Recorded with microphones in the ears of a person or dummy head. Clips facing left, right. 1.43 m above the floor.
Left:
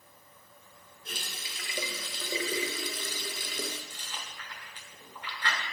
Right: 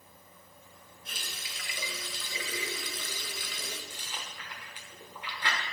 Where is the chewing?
15° right (ahead or behind), 1.1 m.